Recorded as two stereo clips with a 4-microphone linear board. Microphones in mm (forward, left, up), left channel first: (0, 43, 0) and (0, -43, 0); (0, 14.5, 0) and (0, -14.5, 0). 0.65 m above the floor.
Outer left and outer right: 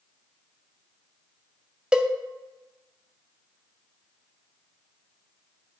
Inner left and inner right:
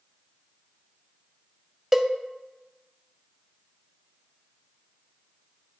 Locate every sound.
1.9 s a cowbell: 10° right (ahead or behind), 0.5 m